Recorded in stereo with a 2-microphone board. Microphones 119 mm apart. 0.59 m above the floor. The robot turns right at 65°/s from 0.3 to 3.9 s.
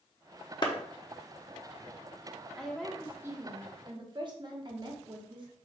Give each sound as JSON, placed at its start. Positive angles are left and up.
{"t": 0.6, "sound": "a clap", "side_deg": 40, "distance_m": 0.8}
{"t": 2.6, "sound": "a woman speaking", "azimuth_deg": 170, "distance_m": 1.0}